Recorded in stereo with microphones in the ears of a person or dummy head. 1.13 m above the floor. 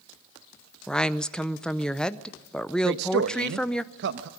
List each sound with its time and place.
0.9 s a woman speaking: 5° left (ahead or behind), 0.7 m
2.8 s a man speaking: 65° right (ahead or behind), 0.9 m